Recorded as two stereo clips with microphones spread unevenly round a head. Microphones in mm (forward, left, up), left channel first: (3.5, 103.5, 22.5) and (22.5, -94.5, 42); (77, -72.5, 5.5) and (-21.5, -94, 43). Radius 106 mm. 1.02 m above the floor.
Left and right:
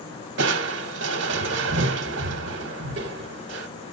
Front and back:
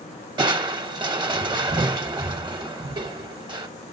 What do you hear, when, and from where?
0.4 s crushing: 120° right, 0.9 m